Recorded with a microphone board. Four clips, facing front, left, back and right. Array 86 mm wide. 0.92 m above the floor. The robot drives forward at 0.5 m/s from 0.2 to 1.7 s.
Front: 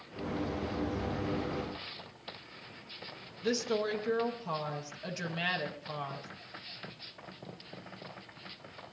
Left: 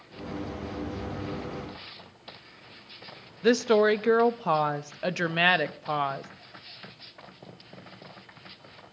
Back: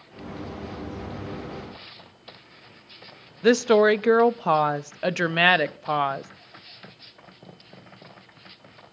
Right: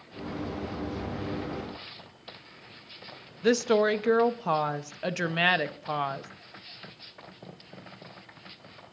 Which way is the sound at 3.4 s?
170° left.